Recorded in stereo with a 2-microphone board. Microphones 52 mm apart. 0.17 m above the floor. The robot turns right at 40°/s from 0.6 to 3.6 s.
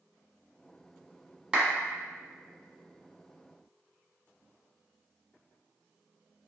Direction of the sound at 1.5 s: 15° right (ahead or behind).